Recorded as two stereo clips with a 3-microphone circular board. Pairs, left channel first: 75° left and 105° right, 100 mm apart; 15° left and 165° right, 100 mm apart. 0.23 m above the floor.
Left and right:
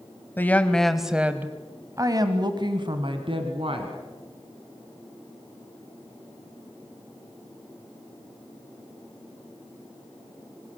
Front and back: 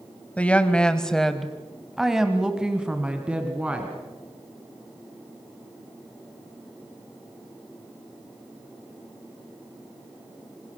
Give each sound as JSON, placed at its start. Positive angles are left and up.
{"t": 0.4, "sound": "a woman speaking", "azimuth_deg": 65, "distance_m": 1.4}